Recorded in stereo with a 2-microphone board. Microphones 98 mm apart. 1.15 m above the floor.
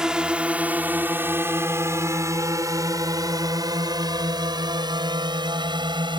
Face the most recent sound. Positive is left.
turn(degrees=-50)  # may be behind; listen again after turning